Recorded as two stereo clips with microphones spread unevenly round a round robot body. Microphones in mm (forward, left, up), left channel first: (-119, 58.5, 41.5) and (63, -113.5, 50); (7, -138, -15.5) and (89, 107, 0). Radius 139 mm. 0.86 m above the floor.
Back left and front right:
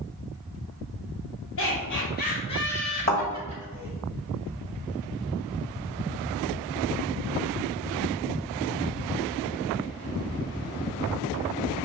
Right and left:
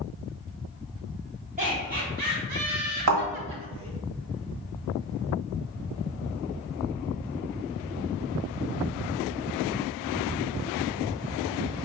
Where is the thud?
80° left, 1.3 m.